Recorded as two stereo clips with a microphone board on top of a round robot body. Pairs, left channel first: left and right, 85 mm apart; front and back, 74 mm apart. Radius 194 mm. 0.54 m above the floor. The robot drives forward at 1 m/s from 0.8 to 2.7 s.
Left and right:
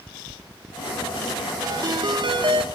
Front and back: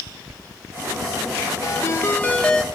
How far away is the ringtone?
About 1.7 m.